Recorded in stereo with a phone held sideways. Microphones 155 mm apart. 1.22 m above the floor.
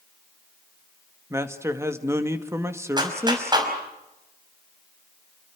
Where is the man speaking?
15° right (ahead or behind), 2 m.